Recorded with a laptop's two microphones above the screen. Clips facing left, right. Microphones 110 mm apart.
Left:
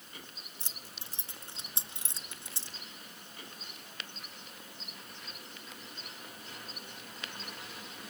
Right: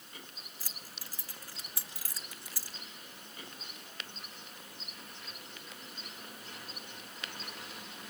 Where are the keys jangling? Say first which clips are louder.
Even; 25° left (ahead or behind), 0.8 m.